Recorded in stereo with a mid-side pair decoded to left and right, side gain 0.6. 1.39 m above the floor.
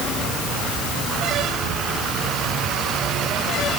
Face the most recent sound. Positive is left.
No sound to turn to.